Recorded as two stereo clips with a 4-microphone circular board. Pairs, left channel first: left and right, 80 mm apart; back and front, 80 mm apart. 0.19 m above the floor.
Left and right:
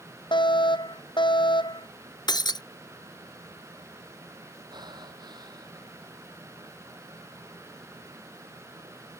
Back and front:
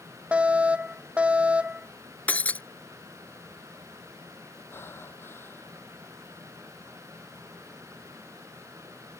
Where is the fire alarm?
75° left.